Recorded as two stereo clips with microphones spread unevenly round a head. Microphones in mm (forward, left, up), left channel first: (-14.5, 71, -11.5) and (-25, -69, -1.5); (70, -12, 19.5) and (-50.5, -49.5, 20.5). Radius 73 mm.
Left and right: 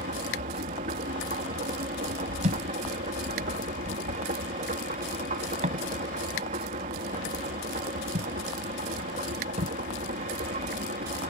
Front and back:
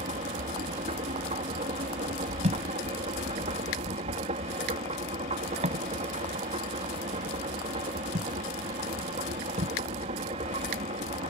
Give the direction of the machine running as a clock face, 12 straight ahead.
4 o'clock.